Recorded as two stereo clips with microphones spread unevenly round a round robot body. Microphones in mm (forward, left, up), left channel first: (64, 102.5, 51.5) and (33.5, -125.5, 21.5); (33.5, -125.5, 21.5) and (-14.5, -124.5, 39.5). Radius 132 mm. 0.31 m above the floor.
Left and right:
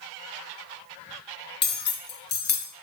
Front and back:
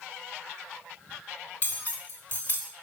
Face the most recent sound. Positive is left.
turn(degrees=40)